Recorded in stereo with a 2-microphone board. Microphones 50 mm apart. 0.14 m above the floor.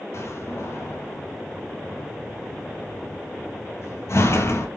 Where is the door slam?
55° left (ahead or behind), 2 m.